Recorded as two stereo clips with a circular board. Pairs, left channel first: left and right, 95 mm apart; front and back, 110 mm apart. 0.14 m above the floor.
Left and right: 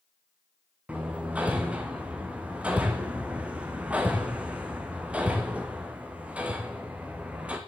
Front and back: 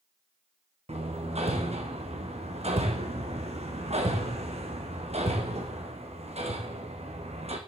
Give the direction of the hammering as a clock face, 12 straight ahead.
6 o'clock.